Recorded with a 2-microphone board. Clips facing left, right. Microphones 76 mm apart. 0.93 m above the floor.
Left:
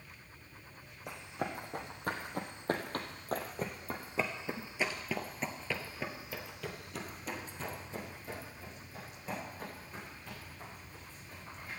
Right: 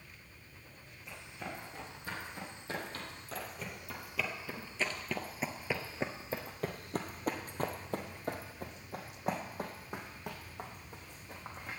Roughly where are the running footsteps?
Left.